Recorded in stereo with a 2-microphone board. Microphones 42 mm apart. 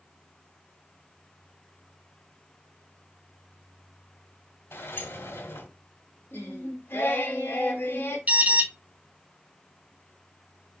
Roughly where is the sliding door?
Left.